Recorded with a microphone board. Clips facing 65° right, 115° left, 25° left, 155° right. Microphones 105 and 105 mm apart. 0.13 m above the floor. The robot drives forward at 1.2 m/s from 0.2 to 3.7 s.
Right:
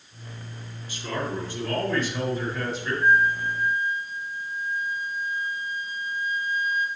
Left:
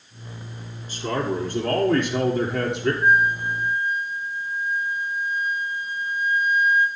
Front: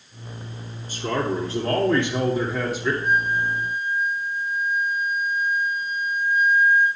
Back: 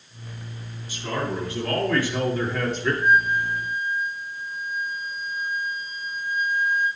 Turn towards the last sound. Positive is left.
turn(degrees=180)